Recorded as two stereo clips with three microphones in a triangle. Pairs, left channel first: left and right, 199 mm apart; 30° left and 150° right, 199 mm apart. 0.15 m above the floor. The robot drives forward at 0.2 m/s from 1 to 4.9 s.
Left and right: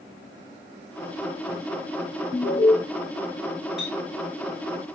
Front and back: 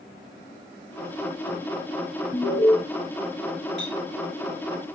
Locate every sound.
2.3 s an alarm: 115° left, 3 m
3.8 s a clink: 175° right, 7.5 m